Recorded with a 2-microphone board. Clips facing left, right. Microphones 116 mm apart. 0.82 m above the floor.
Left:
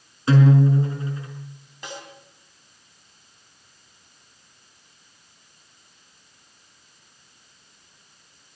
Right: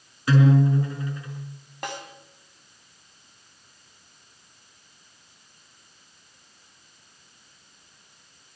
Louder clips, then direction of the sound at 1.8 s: Right 3 dB; 60° right (ahead or behind).